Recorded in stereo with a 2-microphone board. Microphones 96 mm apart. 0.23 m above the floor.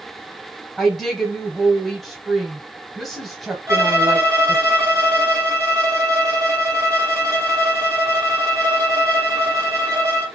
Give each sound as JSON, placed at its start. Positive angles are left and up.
{"t": 0.8, "sound": "a woman speaking", "side_deg": 5, "distance_m": 1.2}
{"t": 3.7, "sound": "a violin", "side_deg": -35, "distance_m": 1.7}